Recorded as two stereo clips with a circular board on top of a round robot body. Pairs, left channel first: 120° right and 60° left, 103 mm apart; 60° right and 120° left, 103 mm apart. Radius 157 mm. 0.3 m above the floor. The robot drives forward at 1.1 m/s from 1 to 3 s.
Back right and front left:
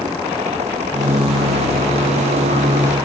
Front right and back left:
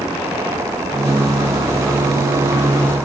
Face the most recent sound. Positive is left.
No sound to turn to.